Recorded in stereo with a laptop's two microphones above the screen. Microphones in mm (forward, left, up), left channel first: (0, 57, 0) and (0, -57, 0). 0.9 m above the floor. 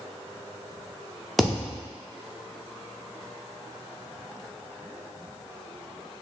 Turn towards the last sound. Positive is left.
turn(degrees=0)  # may be behind; listen again after turning